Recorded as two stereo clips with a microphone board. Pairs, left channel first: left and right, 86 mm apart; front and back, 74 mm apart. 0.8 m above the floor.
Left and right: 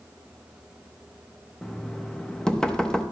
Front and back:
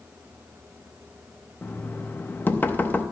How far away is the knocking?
About 0.6 m.